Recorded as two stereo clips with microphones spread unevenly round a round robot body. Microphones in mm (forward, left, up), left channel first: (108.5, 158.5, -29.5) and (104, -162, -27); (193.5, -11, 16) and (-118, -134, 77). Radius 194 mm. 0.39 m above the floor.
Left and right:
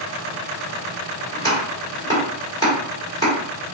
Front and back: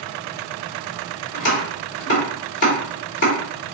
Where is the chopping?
20° left, 1.4 m.